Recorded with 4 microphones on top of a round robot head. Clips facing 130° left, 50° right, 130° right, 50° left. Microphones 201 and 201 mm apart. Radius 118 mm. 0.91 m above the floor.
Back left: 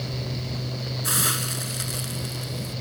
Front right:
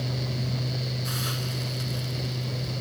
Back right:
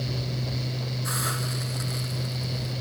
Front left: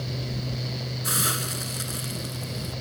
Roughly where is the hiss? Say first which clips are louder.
Back left 2 dB, front left 1 dB; left.